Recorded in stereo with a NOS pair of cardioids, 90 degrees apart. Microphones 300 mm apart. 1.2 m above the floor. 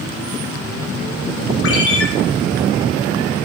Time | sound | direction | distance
1.6 | a ringtone | 50° left | 0.9 m